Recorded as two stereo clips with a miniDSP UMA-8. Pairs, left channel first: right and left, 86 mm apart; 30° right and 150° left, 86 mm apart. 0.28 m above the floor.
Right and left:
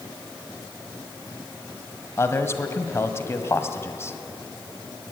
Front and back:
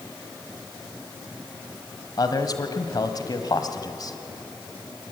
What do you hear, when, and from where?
2.2 s a man speaking: 40° right, 1.5 m